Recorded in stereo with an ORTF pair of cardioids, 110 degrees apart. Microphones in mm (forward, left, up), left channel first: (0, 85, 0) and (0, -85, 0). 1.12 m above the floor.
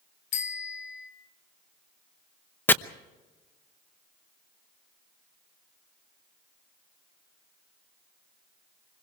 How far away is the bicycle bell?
About 3 m.